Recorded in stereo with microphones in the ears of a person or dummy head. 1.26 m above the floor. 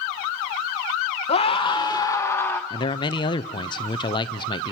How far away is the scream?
About 1.0 m.